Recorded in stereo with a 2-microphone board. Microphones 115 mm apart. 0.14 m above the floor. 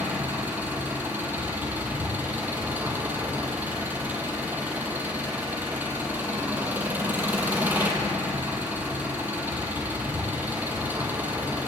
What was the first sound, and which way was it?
An engine running, 15° right (ahead or behind).